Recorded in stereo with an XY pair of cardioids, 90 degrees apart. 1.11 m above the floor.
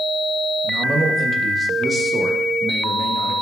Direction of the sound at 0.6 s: 70° right.